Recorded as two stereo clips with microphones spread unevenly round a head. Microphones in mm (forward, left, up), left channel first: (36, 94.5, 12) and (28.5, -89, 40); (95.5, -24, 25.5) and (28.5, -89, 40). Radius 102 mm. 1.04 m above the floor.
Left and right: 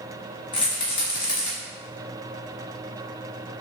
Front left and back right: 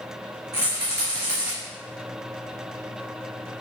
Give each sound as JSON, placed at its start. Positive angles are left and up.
{"t": 0.5, "sound": "a rattle", "azimuth_deg": 150, "distance_m": 1.4}